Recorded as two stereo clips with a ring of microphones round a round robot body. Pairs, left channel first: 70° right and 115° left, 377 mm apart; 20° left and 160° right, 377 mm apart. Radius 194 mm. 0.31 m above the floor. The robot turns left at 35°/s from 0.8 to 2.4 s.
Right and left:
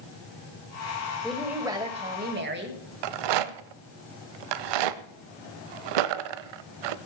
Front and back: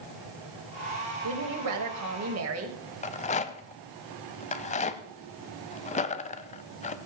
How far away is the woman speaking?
About 2 m.